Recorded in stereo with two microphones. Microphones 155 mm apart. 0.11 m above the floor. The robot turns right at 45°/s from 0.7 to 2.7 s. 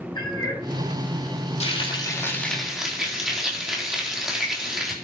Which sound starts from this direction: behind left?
Frying, at 1.6 s.